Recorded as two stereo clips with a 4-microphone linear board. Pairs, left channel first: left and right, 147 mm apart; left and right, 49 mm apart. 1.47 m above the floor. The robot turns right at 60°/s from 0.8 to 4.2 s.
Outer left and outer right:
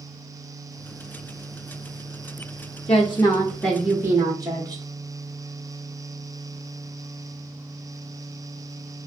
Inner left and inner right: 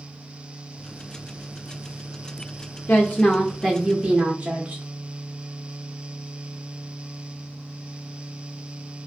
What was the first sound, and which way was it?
A woman speaking, 130° left.